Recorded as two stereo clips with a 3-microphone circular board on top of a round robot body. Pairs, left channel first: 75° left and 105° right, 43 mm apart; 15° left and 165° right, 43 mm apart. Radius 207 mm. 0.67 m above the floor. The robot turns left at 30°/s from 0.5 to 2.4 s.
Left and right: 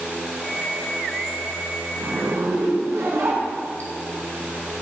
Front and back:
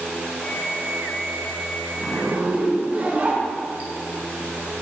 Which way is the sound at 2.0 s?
95° right.